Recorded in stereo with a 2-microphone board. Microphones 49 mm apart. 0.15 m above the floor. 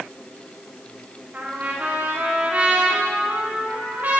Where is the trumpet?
40° right (ahead or behind), 9 m.